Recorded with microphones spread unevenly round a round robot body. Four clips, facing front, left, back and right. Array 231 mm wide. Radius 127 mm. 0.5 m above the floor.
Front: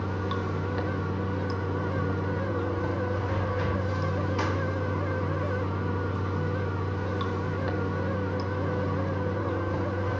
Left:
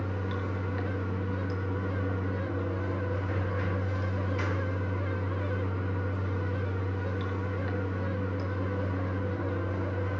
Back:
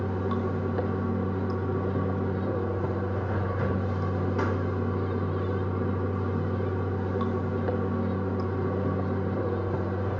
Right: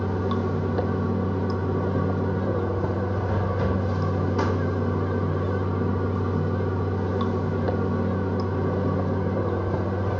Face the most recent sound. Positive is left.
turn(degrees=-100)